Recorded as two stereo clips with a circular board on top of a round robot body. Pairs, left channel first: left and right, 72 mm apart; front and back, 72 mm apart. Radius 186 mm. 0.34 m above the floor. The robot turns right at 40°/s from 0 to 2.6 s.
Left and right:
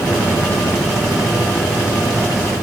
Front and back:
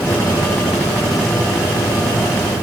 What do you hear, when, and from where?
Only background noise.